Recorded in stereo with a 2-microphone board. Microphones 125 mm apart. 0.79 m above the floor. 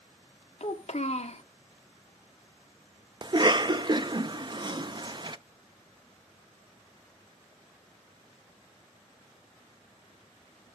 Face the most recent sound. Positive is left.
turn(degrees=-35)  # may be behind; listen again after turning